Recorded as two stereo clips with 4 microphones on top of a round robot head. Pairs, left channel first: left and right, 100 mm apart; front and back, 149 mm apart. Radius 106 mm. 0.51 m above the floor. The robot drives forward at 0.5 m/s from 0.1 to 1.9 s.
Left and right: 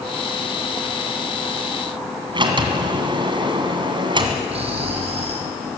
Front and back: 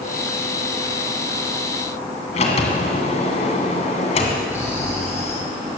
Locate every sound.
2.3 s a sliding door: 50° right, 2 m
4.5 s snoring: 75° right, 4 m